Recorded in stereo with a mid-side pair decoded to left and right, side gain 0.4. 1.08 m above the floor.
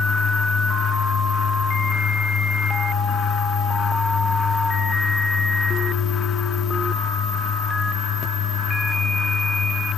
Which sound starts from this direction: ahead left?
A fan, at 0.0 s.